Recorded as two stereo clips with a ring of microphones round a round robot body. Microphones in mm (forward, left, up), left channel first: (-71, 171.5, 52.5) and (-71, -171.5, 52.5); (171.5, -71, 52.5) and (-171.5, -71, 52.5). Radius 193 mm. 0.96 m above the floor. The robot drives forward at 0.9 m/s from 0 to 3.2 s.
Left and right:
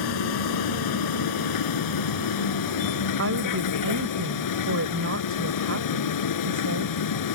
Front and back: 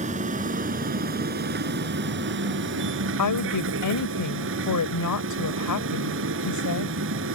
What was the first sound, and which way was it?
A vehicle, 105° left.